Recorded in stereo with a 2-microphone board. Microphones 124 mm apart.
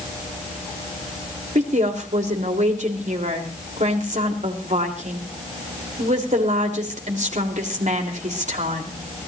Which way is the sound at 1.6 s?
75° right (ahead or behind).